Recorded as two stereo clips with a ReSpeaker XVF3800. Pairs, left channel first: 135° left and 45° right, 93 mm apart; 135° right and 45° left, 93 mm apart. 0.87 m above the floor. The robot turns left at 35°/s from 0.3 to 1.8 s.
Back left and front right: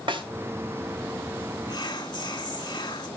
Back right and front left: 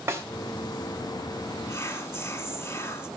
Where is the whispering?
170° left, 1.9 m; by 3.1 s 165° left, 1.9 m.